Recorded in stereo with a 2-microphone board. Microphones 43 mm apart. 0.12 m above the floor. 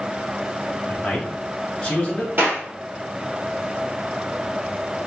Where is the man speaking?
25° left (ahead or behind), 1.9 m.